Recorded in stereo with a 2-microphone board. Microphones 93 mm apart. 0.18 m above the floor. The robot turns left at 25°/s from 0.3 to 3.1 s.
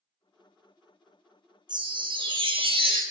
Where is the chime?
55° right, 0.6 m; by 3.0 s 85° right, 0.6 m.